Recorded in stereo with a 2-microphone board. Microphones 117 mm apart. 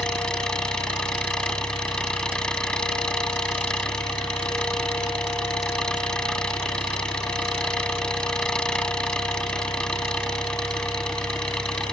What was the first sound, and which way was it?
An engine running, 5° left (ahead or behind).